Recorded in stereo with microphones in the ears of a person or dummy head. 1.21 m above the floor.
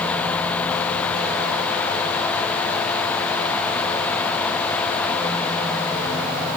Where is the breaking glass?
I don't hear breaking glass.